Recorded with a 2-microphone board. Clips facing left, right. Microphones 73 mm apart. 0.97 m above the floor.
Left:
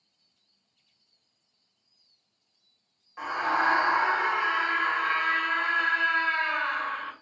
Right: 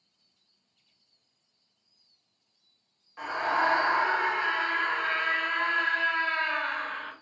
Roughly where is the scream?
Centre.